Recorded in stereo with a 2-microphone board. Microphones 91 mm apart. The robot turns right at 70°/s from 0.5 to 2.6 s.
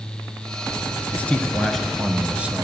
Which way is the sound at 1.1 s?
15° left (ahead or behind).